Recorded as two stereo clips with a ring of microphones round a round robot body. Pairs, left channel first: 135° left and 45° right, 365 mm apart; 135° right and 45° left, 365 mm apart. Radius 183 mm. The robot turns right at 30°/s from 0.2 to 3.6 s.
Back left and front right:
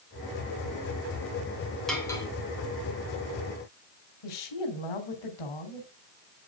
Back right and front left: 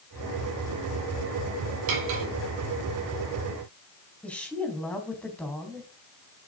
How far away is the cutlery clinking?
About 4 m.